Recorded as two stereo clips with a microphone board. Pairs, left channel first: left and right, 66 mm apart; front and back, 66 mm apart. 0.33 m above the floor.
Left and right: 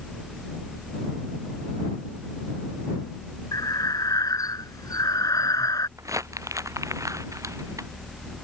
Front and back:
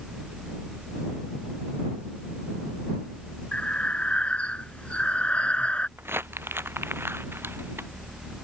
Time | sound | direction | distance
3.5 | breathing | 70° left | ?
6.0 | crumpling | 125° right | ?